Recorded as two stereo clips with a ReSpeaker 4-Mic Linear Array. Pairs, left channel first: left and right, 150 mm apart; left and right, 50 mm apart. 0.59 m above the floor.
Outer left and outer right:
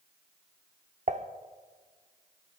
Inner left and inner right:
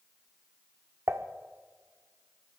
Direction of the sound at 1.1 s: 55° right (ahead or behind).